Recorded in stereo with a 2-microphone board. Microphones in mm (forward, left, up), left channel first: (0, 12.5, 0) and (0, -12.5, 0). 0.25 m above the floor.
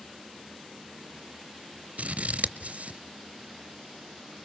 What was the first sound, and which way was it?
Scissors, 60° right (ahead or behind).